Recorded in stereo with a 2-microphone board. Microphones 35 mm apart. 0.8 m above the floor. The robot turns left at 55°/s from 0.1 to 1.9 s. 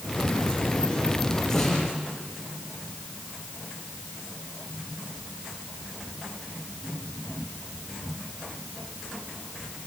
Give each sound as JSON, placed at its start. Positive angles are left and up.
{"t": 1.5, "sound": "a snare drum", "side_deg": 10, "distance_m": 8.5}